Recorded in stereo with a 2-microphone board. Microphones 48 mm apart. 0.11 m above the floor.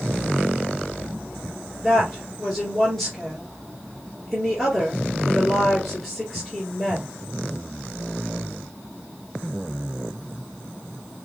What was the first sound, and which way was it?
A woman speaking, centre (ahead or behind).